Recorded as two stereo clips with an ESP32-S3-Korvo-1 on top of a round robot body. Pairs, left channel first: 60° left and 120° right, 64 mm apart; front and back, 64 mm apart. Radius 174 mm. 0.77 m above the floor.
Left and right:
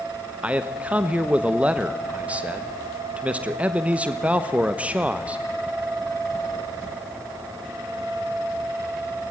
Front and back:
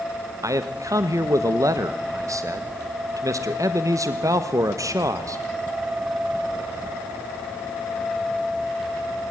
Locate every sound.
0.4 s a man speaking: 175° left, 1.6 m